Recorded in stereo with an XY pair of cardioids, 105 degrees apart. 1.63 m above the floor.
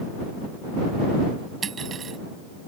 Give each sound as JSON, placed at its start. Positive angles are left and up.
{"t": 1.6, "sound": "cutlery clinking", "azimuth_deg": -40}